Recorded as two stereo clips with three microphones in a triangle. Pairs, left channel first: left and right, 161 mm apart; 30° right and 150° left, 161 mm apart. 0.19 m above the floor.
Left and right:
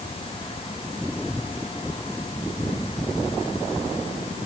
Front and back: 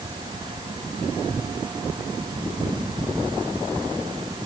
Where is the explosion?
I don't hear an explosion.